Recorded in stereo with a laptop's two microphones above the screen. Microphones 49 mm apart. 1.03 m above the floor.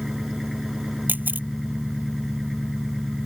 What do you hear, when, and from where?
0.0 s an engine running: 5° right (ahead or behind)
1.1 s a camera shutter: 35° right (ahead or behind)